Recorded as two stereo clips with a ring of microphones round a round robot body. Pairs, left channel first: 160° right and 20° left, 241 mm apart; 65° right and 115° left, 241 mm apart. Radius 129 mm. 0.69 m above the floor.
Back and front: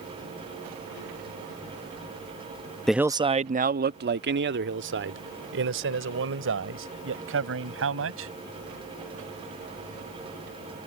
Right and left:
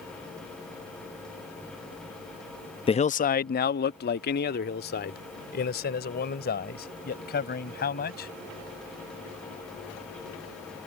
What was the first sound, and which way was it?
A man speaking, 70° right.